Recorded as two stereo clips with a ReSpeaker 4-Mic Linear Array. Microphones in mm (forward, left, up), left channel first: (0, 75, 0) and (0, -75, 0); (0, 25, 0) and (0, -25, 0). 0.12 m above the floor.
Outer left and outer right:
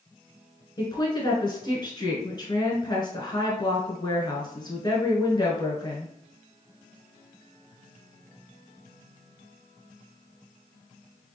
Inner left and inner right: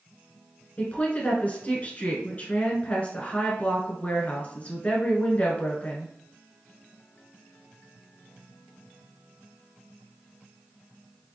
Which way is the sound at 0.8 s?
30° left (ahead or behind).